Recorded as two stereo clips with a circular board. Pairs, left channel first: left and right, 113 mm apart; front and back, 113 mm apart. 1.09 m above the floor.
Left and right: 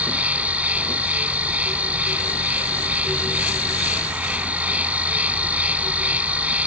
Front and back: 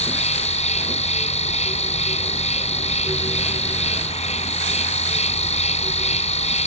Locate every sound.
0.0 s an insect: 15° right